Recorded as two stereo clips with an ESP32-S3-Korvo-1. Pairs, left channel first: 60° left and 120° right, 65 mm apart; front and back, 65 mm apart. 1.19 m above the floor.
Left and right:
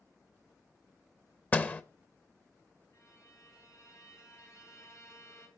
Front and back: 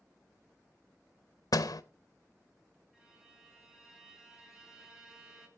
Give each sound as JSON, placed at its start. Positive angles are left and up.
{"t": 1.5, "sound": "a door slam", "azimuth_deg": -5, "distance_m": 0.7}
{"t": 2.9, "sound": "a violin", "azimuth_deg": 100, "distance_m": 3.0}